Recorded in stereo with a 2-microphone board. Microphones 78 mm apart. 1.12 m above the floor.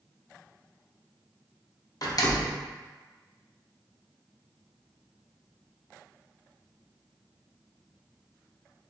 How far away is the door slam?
About 0.6 m.